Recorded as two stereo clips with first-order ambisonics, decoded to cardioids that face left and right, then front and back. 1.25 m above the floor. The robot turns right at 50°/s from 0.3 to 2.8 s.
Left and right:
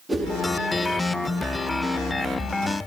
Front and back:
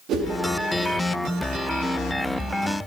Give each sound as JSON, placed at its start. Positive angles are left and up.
{"t": 0.1, "sound": "a whoosh", "azimuth_deg": -175, "distance_m": 0.6}